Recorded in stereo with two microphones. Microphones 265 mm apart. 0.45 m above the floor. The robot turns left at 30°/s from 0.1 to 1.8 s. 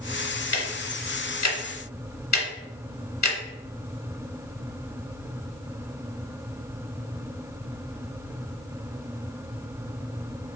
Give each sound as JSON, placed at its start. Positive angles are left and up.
{"t": 0.5, "sound": "ticking", "side_deg": 50, "distance_m": 0.8}